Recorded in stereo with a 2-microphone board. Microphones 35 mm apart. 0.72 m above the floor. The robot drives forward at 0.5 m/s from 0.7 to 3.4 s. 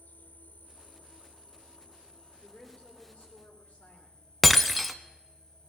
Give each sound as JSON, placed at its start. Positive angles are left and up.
{"t": 0.0, "sound": "an insect", "side_deg": 65, "distance_m": 1.0}
{"t": 2.4, "sound": "a woman speaking", "side_deg": 55, "distance_m": 3.0}
{"t": 4.4, "sound": "breaking glass", "side_deg": 0, "distance_m": 0.7}